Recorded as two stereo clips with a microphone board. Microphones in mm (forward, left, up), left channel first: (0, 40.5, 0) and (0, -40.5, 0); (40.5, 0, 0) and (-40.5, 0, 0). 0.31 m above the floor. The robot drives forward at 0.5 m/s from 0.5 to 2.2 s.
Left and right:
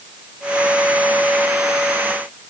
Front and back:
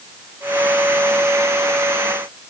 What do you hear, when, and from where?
Only background noise.